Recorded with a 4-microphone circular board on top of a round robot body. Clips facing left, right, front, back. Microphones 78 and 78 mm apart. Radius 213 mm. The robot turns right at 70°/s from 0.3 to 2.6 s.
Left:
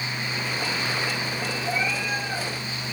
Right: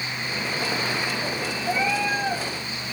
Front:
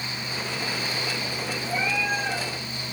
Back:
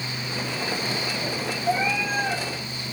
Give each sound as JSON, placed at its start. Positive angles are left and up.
{"t": 1.6, "sound": "a cat meowing", "azimuth_deg": -170, "distance_m": 6.5}